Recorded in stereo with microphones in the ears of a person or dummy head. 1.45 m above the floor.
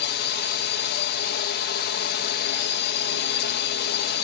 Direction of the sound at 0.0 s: 45° left (ahead or behind).